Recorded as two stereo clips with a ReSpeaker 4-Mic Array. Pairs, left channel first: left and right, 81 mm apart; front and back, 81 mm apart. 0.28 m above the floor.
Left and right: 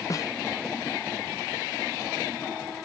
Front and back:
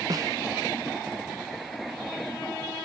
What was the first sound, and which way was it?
A snare drum, 140° left.